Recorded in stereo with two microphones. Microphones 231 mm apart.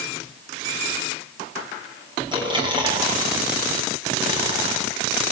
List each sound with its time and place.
2.3 s chewing: 20° right (ahead or behind), 7.5 m